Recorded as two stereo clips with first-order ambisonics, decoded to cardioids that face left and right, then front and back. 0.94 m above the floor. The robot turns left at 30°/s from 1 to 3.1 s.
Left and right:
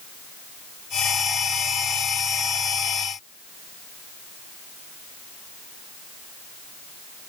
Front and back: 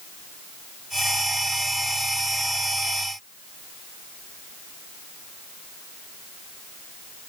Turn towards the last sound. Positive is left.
No sound to turn to.